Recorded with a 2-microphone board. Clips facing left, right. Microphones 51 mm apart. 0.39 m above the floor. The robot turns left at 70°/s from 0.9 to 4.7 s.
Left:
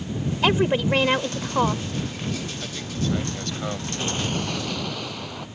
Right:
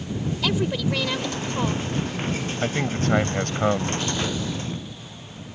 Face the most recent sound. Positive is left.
turn(degrees=100)